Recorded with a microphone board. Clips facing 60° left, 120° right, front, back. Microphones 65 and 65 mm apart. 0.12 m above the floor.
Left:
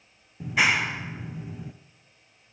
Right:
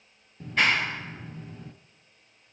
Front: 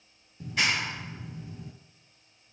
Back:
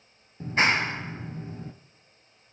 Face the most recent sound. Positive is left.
turn(degrees=140)